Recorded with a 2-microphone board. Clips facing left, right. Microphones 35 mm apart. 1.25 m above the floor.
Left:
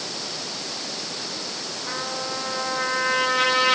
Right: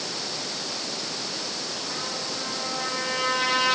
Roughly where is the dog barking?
No dog barking in this recording.